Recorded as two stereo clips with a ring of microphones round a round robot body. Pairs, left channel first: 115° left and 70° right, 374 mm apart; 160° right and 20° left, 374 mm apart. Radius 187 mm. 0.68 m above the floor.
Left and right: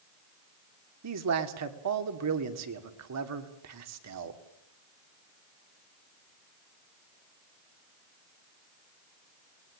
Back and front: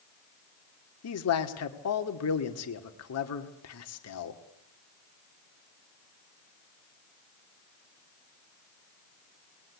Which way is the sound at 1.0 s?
110° right.